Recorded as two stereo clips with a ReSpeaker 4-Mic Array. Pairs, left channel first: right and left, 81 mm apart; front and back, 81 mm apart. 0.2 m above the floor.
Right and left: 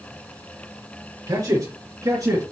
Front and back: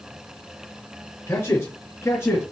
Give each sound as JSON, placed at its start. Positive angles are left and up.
{"t": 1.3, "sound": "a man speaking", "azimuth_deg": 55, "distance_m": 3.5}